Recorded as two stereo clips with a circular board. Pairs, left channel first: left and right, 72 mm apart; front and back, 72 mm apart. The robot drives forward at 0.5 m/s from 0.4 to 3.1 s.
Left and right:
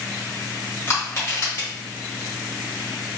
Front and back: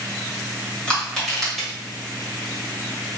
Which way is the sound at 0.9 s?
70° left.